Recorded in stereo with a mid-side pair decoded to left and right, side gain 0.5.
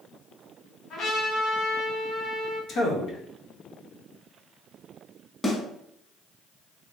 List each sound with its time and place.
0.9 s a trumpet: 60° left, 1.6 m
2.7 s a man speaking: 65° left, 1.2 m
5.4 s a snare drum: 15° left, 1.8 m